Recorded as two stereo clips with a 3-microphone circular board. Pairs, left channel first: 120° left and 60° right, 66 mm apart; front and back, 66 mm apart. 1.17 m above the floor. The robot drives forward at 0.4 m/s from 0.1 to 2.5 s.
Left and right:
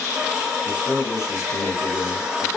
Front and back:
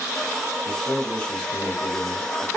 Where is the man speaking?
60° left, 1.2 m; by 2.5 s 95° left, 1.1 m.